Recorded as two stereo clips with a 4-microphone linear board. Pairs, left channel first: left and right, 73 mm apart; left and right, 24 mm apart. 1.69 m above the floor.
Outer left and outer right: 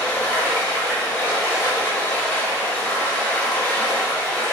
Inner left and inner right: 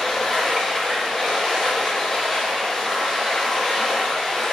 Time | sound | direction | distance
0.0 | running water | 25° left (ahead or behind) | 0.8 m